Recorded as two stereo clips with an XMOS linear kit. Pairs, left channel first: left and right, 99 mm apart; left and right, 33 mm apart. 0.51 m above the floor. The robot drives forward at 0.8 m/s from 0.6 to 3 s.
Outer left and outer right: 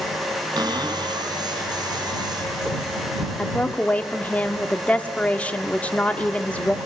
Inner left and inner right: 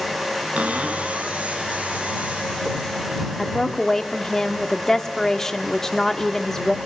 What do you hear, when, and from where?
0.6 s a cupboard door: 40° right (ahead or behind), 4 m; by 1.4 s 50° right (ahead or behind), 3.5 m
3.4 s a woman speaking: 15° left (ahead or behind), 1.3 m